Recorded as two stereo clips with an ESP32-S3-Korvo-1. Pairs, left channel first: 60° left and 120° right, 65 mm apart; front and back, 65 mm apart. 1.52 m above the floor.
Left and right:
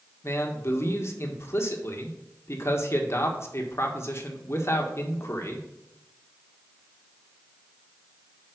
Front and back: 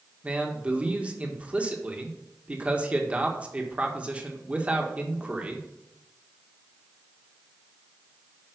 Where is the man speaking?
110° left, 1.6 m.